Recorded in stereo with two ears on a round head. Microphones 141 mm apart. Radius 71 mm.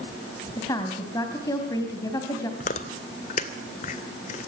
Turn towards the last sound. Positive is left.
turn(degrees=45)  # may be behind; listen again after turning